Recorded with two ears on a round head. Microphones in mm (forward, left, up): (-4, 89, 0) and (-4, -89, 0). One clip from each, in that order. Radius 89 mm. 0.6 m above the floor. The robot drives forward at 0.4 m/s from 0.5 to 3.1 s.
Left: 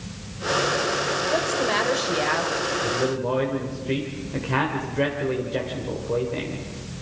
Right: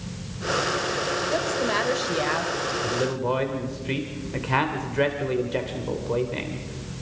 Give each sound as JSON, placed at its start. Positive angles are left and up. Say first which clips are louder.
{"t": 1.3, "sound": "a woman speaking", "louder": "left 2 dB", "side_deg": 5, "distance_m": 1.8}
{"t": 2.8, "sound": "a man speaking", "louder": "left 1 dB", "side_deg": -30, "distance_m": 1.9}